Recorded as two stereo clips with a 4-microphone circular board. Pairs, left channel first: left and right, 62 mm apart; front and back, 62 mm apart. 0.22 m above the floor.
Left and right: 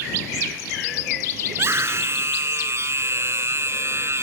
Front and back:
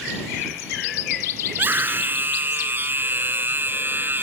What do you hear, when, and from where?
1.5 s a scream: 130° right